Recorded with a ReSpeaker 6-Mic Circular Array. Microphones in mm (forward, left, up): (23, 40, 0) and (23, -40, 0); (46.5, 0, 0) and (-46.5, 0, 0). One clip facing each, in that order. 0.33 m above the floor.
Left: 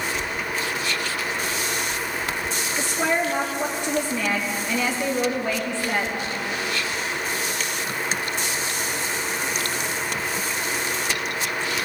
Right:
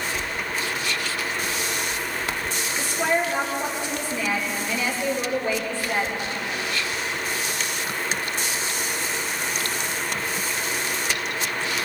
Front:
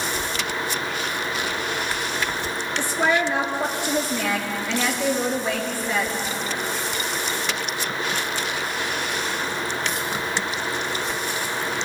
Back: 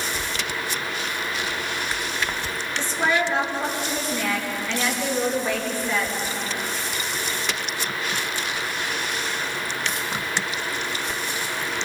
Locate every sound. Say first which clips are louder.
2.8 s a woman speaking: even, front 1 dB; 80° left, 6 m